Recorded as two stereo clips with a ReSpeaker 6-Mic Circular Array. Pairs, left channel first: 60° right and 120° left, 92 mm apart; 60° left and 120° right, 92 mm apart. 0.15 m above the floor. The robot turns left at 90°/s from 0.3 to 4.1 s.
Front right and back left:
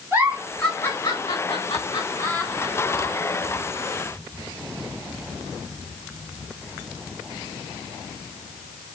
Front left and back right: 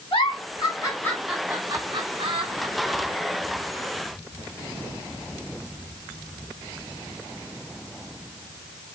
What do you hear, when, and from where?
0.1 s a giggle: 55° left, 6 m; by 3.1 s 160° left, 6 m